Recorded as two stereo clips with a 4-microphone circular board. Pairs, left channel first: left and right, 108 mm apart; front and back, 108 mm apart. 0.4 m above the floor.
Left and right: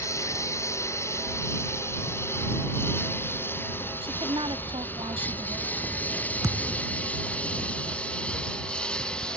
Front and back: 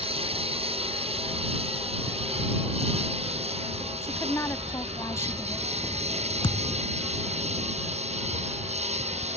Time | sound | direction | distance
0.0 | a lawn mower | 155° left | ?
4.0 | a woman speaking | 60° right | ?
6.4 | a thud | 35° right | ?